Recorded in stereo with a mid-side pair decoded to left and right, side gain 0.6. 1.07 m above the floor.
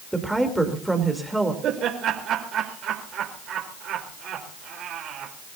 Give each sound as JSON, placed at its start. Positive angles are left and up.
{"t": 0.1, "sound": "a woman speaking", "azimuth_deg": -5, "distance_m": 3.5}
{"t": 1.6, "sound": "laughter", "azimuth_deg": -55, "distance_m": 4.0}